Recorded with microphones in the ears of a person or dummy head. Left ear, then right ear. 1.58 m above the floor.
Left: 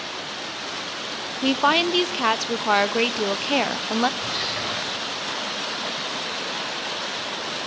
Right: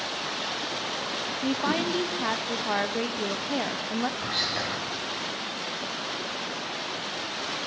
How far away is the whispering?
About 9 m.